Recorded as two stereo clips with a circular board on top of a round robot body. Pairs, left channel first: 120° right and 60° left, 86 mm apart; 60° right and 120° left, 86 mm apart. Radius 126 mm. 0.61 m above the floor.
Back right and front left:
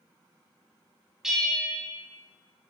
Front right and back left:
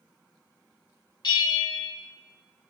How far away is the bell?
About 3 m.